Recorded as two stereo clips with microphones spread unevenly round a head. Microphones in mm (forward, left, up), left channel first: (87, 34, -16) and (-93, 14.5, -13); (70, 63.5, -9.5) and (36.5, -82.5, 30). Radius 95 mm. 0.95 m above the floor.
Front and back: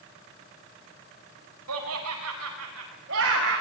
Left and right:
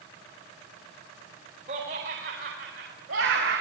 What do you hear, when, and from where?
1.7 s laughter: 155° right, 5 m; by 3.6 s 130° right, 6 m